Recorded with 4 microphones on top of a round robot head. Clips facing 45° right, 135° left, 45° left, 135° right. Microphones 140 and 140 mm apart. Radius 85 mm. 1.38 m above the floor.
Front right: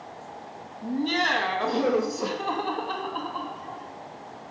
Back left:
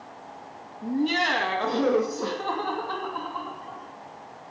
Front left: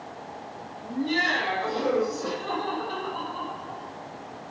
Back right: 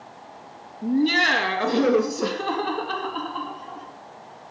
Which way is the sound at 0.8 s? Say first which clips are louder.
Back left 1 dB, back right 7 dB; 140° right.